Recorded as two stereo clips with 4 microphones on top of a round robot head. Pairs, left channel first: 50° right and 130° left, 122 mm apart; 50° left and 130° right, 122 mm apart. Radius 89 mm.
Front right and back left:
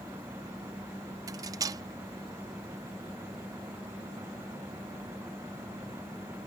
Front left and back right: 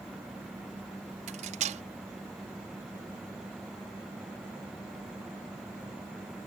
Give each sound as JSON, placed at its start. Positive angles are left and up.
{"t": 1.3, "sound": "cutlery clinking", "azimuth_deg": -165}